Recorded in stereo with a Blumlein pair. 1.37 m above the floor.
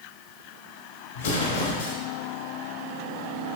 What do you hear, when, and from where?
1.1 s an explosion: 65° left, 3 m